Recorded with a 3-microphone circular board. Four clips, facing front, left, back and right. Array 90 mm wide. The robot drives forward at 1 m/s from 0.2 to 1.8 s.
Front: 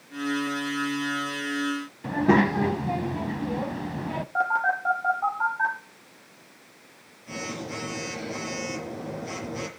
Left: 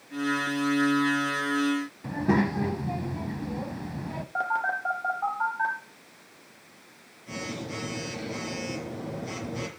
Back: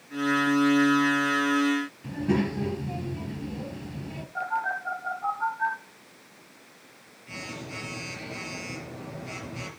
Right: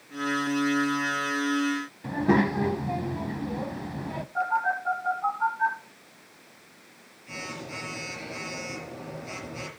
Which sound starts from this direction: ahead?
A child speaking, at 2.0 s.